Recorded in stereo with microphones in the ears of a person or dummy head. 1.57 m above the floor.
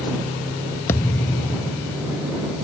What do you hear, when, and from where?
0.9 s a thud: 20° left (ahead or behind)